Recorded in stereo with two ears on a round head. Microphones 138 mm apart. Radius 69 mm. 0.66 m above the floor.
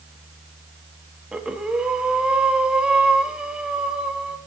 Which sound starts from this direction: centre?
Breathing, at 1.3 s.